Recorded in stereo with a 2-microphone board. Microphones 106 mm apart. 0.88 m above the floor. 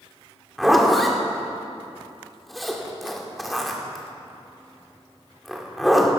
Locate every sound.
0.6 s a zipper: centre (ahead or behind), 2 m